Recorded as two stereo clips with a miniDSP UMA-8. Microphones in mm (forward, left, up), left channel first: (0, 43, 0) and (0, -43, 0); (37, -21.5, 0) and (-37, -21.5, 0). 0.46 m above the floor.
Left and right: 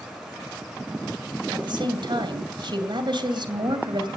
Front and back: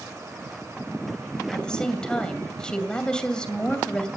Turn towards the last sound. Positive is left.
turn(degrees=-80)